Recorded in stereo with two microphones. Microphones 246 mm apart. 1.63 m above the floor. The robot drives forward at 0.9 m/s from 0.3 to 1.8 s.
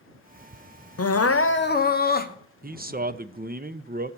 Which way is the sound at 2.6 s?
35° right (ahead or behind).